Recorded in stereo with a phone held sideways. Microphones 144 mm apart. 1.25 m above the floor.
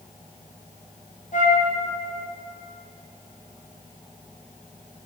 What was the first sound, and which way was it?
A flute, 60° left (ahead or behind).